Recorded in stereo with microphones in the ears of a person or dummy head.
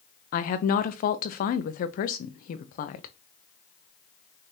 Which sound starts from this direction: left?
A woman speaking, at 0.3 s.